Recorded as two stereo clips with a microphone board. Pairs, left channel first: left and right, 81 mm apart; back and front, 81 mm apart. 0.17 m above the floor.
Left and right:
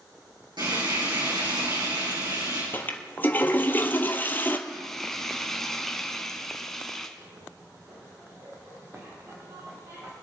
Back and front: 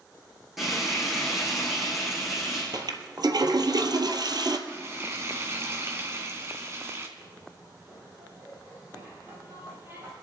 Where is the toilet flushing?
25° left, 1.1 m.